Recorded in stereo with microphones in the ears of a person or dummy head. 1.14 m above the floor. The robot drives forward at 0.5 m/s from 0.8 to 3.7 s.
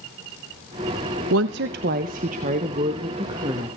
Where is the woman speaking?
65° right (ahead or behind), 0.7 m; by 3.7 s 25° right (ahead or behind), 1.6 m.